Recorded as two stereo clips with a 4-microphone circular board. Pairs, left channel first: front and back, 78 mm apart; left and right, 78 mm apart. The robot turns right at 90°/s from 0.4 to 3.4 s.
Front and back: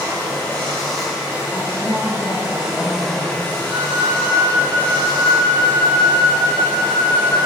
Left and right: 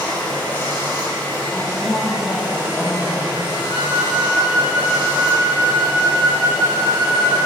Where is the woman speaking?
60° right, 1.6 m; by 3.5 s 110° left, 1.6 m.